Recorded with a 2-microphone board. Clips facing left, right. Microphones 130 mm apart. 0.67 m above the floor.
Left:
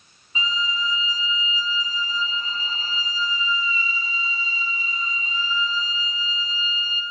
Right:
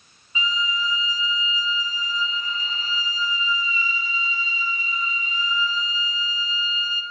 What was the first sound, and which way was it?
A violin, 30° left (ahead or behind).